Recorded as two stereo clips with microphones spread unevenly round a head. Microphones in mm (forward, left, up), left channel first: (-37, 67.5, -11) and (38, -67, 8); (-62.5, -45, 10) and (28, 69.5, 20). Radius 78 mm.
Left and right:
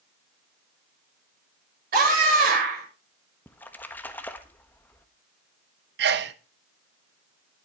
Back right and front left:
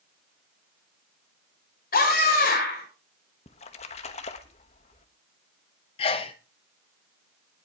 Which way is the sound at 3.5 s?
160° right.